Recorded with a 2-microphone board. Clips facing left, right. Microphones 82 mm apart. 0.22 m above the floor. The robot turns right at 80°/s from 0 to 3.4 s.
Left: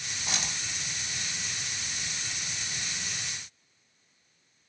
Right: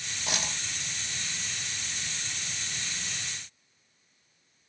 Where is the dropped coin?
55° right (ahead or behind), 1.4 m; by 0.6 s 30° right (ahead or behind), 1.4 m.